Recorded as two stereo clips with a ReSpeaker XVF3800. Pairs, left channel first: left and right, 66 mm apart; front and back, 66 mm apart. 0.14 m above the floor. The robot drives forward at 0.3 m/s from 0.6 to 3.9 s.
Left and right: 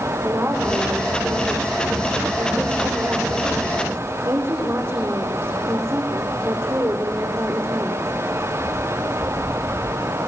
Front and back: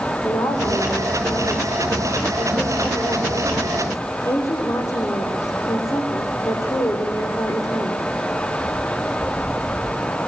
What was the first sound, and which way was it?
A woman speaking, 35° right.